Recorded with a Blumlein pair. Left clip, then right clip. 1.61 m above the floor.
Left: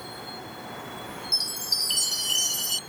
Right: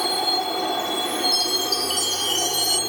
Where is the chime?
Straight ahead.